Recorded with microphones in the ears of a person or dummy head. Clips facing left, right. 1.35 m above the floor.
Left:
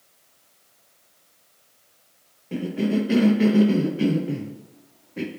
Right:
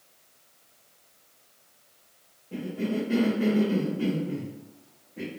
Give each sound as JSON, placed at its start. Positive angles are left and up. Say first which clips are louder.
{"t": 2.5, "sound": "a cough", "louder": "left 6 dB", "side_deg": 80, "distance_m": 0.7}